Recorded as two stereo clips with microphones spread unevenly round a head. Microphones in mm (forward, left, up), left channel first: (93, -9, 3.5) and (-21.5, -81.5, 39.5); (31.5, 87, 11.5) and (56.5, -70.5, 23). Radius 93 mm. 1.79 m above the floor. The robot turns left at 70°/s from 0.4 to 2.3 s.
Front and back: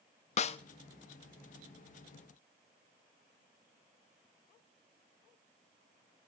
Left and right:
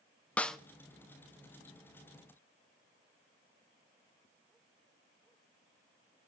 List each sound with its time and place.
0.4 s a snare drum: 15° left, 0.9 m; by 0.6 s 5° left, 0.9 m